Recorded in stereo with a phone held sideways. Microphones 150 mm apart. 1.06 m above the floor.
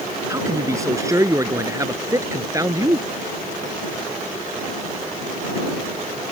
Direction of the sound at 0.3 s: 20° right (ahead or behind).